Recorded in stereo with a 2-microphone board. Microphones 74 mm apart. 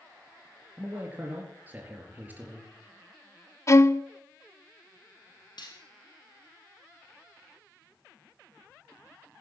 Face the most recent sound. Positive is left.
turn(degrees=70)  # may be behind; listen again after turning